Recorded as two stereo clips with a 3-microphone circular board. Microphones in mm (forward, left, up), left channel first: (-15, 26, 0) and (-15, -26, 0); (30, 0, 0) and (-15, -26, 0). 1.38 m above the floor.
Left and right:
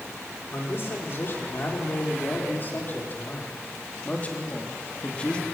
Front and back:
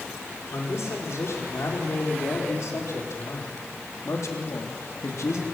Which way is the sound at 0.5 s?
50° left.